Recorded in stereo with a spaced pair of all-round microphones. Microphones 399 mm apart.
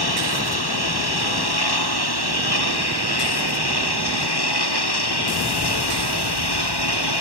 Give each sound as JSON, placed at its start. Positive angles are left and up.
{"t": 0.0, "sound": "a lawn mower", "side_deg": 70}